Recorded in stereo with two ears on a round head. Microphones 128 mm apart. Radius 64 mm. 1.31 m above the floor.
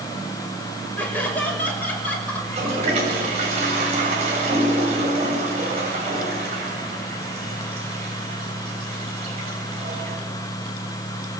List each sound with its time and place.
1.0 s laughter: 10° left (ahead or behind), 6 m
2.4 s a toilet flushing: 50° right (ahead or behind), 7.5 m